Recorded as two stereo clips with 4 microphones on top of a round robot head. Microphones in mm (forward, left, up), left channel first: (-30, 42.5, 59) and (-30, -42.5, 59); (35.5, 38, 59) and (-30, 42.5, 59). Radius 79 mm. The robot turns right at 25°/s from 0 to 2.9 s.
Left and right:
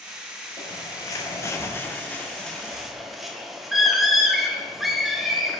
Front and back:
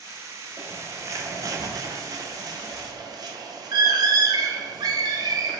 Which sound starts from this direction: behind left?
A bird, at 0.6 s.